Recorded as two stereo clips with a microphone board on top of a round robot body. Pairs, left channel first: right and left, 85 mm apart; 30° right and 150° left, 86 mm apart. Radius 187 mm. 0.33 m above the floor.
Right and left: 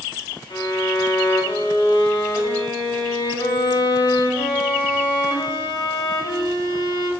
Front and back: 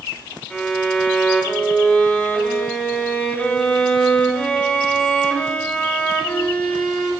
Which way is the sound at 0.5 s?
105° right.